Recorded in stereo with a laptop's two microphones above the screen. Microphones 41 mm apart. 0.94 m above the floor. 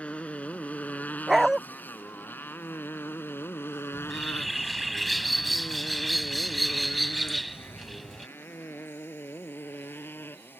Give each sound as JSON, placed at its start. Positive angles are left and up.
{"t": 0.0, "sound": "a motorcycle", "side_deg": 35}
{"t": 1.3, "sound": "a dog barking", "side_deg": -10}
{"t": 3.9, "sound": "a bird", "side_deg": 0}